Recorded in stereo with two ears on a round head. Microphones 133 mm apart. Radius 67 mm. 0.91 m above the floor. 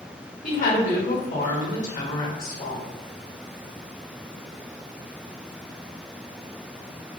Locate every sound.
0.4 s a woman speaking: 55° left (ahead or behind), 1.1 m